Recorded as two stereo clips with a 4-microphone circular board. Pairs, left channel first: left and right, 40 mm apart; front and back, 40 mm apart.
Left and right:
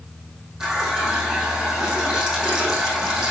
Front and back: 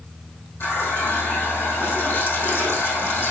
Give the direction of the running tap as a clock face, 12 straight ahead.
1 o'clock.